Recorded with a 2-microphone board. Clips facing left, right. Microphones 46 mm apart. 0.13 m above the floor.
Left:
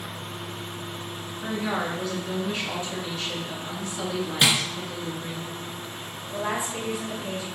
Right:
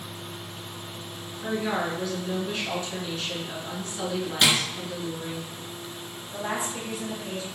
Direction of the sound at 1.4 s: 5° left (ahead or behind).